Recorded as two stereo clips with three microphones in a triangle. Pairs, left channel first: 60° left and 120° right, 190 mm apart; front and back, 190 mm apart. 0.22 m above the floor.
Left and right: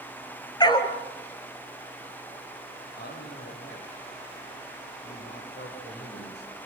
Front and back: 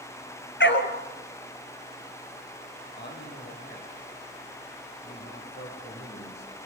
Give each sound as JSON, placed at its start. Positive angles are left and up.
{"t": 0.6, "sound": "a dog barking", "azimuth_deg": -10, "distance_m": 1.9}
{"t": 3.0, "sound": "a man speaking", "azimuth_deg": 30, "distance_m": 10.0}